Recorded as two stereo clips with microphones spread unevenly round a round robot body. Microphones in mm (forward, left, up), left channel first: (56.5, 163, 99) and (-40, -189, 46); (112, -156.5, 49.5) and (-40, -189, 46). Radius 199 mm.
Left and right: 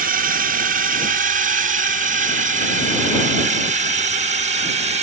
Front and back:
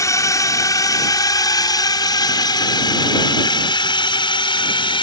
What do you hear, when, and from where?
0.0 s a drone: 50° right; by 5.0 s 40° right